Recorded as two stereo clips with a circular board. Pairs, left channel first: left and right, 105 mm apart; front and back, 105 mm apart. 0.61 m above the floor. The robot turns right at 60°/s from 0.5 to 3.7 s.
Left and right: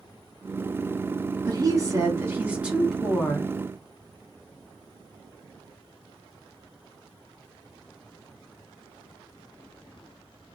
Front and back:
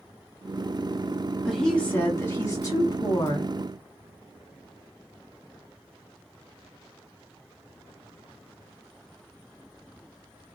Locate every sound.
1.4 s a woman speaking: 95° right, 1.2 m; by 3.5 s 25° left, 1.2 m